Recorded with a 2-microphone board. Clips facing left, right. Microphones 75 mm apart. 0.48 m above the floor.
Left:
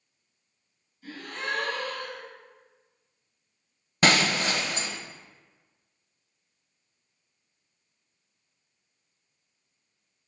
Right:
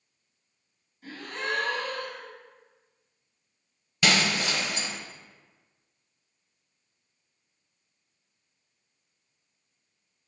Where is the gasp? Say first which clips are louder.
Right 1 dB; 45° right (ahead or behind), 2.5 m.